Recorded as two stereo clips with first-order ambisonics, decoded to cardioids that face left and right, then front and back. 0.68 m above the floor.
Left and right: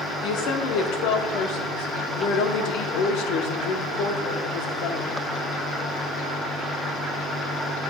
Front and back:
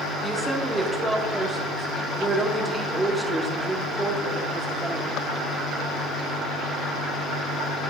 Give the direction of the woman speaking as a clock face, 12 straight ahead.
9 o'clock.